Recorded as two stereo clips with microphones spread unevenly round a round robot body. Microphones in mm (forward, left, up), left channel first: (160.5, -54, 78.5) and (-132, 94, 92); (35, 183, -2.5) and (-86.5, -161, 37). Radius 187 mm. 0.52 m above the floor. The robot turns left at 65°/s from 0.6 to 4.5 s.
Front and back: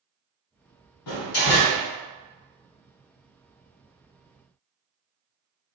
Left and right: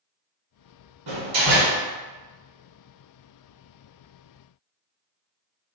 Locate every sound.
1.1 s a door slam: 55° right, 1.1 m; by 1.8 s 105° right, 1.1 m